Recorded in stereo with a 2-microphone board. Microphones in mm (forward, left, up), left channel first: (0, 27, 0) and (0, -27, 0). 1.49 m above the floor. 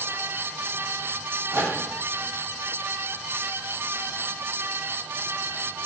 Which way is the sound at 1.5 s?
70° right (ahead or behind).